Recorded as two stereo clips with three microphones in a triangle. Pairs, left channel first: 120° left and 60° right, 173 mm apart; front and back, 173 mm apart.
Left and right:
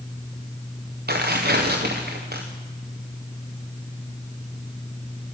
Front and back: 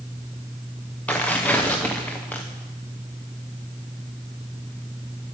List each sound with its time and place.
1.1 s tearing paper: 80° right, 3 m